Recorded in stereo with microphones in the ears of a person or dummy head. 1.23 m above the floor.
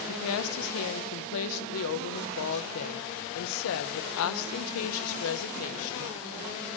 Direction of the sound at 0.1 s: 80° left.